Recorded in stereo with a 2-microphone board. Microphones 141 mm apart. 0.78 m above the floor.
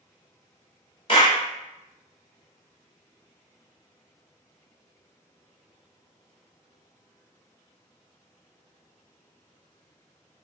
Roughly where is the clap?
Left.